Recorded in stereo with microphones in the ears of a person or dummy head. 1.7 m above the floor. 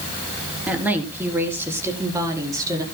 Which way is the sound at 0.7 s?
10° right (ahead or behind).